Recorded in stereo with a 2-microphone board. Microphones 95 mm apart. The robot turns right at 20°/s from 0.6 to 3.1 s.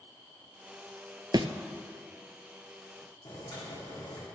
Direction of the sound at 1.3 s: 50° right (ahead or behind).